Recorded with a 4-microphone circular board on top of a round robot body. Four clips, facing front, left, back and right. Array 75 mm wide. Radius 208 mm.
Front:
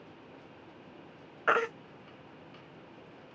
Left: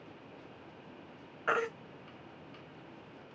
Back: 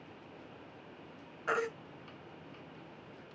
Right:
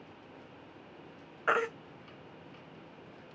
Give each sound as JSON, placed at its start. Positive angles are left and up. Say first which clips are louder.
{"t": 1.5, "sound": "a baby crying", "louder": "right 2 dB, front 6 dB", "azimuth_deg": -20, "distance_m": 1.0}